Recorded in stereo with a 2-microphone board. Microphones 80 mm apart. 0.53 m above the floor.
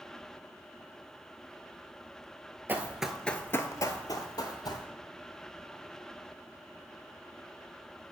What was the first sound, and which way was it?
Running footsteps, 25° right (ahead or behind).